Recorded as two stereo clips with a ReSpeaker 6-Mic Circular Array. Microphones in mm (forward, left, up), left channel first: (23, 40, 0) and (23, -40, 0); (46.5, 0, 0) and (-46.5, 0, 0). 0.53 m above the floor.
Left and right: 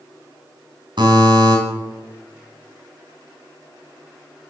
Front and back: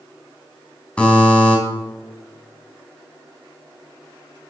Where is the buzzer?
75° right, 3.5 m.